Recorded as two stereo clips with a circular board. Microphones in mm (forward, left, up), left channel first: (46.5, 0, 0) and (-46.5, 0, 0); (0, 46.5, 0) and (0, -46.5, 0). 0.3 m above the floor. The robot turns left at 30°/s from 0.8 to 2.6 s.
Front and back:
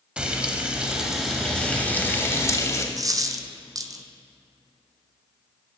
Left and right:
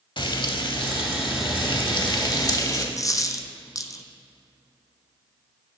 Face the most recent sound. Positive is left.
turn(degrees=135)